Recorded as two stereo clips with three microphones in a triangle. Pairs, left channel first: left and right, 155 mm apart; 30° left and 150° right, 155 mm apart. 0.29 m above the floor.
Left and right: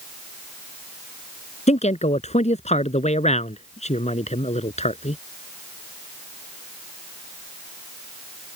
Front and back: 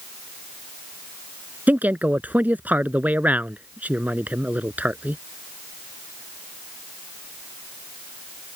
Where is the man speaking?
130° left.